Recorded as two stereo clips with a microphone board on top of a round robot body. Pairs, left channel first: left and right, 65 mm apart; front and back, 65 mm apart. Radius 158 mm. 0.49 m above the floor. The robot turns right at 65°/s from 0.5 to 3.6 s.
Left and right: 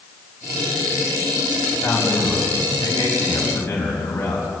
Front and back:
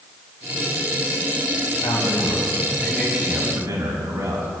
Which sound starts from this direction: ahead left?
A man speaking, at 1.7 s.